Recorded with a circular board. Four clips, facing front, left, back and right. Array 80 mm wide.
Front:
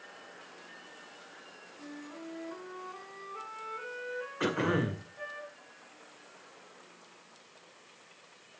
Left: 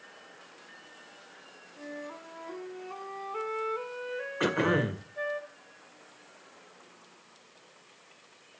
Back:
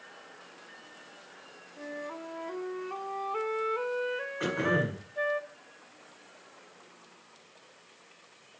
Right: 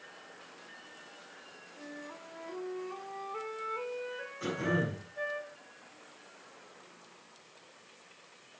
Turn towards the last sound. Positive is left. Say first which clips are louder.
# left 6 dB, even
turn(degrees=80)